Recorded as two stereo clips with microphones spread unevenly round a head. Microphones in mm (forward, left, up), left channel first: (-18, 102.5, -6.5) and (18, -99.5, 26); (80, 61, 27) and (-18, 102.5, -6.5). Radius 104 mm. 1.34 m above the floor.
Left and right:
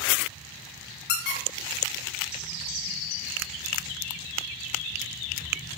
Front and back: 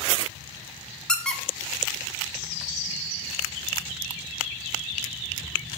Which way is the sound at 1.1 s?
55° left.